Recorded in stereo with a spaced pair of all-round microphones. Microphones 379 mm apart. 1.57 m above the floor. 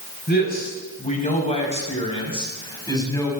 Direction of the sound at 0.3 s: 25° left (ahead or behind).